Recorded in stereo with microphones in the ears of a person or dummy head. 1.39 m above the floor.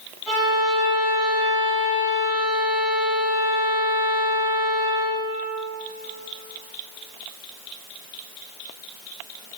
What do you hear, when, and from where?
0.3 s a violin: centre (ahead or behind), 1.6 m